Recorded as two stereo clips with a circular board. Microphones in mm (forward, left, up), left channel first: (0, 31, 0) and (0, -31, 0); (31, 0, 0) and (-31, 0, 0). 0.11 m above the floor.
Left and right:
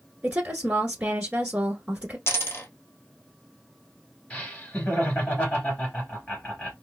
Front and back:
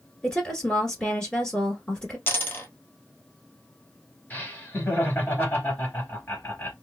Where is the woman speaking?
55° right, 1.2 m.